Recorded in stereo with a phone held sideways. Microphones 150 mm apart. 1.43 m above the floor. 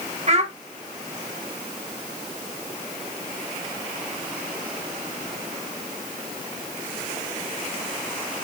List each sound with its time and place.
0.3 s a child speaking: 50° right (ahead or behind), 0.9 m